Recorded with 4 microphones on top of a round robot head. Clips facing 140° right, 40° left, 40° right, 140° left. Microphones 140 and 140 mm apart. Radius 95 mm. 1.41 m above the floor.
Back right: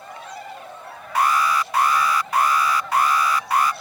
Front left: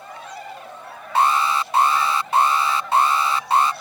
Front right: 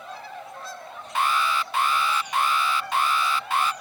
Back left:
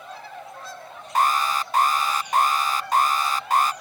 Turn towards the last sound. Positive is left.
turn(degrees=100)